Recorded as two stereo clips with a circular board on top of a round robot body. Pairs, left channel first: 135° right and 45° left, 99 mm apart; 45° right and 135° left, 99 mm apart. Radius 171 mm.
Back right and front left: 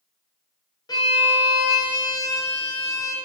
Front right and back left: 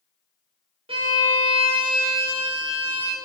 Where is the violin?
170° left, 2 m.